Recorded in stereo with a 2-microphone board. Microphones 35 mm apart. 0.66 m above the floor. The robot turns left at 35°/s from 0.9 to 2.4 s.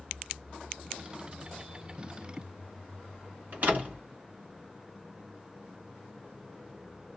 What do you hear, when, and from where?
3.5 s a door slam: 50° right (ahead or behind), 2.5 m